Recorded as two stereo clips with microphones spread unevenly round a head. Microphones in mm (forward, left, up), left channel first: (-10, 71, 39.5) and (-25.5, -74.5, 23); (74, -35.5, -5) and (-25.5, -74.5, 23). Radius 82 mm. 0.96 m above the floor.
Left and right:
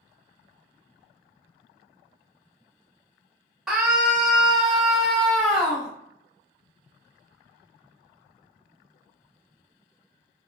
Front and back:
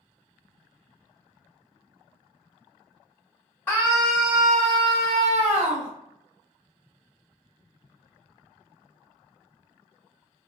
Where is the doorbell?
I don't hear a doorbell.